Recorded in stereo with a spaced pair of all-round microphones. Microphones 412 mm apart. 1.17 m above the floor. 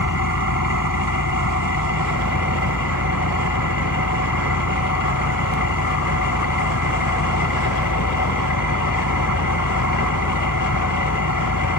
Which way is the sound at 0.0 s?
50° left (ahead or behind).